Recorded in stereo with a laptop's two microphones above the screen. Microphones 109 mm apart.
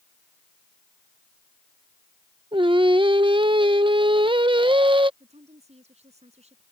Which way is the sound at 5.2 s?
85° right.